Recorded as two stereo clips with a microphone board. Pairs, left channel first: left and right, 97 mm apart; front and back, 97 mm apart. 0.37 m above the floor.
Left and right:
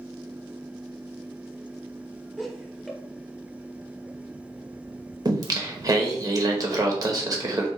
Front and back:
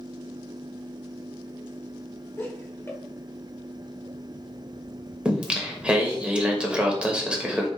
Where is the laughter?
Straight ahead, 1.0 m.